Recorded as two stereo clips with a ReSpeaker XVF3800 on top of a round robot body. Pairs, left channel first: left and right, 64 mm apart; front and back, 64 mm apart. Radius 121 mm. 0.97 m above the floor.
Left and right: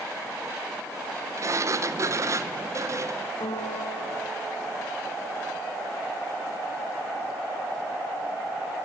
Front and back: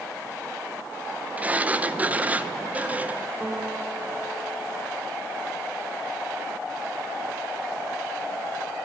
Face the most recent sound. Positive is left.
turn(degrees=110)